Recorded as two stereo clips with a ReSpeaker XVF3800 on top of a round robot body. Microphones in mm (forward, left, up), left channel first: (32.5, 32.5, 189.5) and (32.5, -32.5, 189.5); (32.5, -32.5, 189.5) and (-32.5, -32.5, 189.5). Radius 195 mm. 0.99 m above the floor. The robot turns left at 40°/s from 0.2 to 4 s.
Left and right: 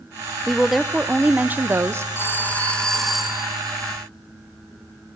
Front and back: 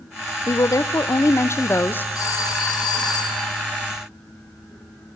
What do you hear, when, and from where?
0.5 s a woman speaking: 10° left, 1.1 m; by 2.0 s 55° right, 1.1 m
2.1 s a phone ringing: 40° left, 5.5 m; by 3.5 s 20° right, 5.5 m